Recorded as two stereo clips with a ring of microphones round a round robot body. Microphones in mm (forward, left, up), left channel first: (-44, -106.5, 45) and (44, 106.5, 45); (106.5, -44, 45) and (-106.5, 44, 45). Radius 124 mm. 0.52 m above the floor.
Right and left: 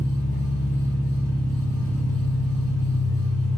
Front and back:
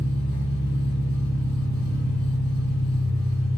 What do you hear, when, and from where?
0.0 s an engine running: 40° right, 1.2 m